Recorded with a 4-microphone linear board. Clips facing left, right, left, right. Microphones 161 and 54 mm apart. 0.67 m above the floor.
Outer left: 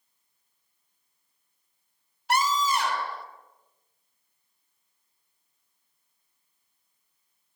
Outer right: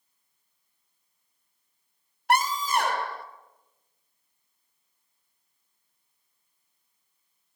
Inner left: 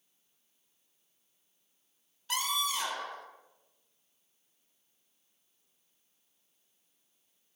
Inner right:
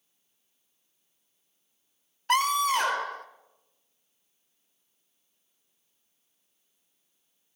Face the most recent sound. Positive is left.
turn(degrees=-55)  # may be behind; listen again after turning